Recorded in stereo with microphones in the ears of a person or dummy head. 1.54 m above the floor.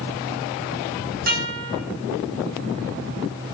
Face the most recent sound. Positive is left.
turn(degrees=-50)  # may be behind; listen again after turning